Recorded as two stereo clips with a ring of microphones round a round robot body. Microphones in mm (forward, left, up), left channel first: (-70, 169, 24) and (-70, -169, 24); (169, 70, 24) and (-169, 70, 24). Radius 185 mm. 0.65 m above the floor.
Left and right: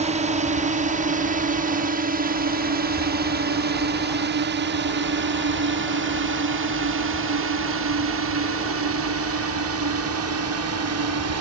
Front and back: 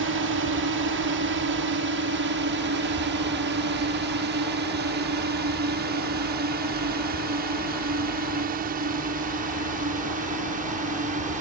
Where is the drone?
150° right; by 11.4 s 115° right.